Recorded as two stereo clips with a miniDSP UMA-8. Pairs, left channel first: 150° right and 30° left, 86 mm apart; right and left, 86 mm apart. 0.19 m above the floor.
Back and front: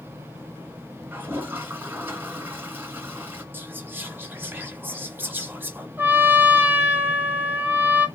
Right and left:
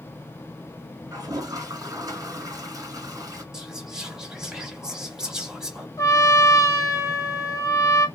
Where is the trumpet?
40° right, 1.0 m.